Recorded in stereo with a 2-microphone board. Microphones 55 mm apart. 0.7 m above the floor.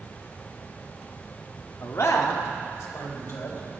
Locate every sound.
1.8 s a man speaking: 55° left (ahead or behind), 1.3 m; by 3.6 s 65° left (ahead or behind), 4 m